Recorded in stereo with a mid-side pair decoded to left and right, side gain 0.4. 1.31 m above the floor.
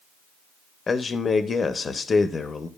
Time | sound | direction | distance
0.9 | a man speaking | 45° left | 0.8 m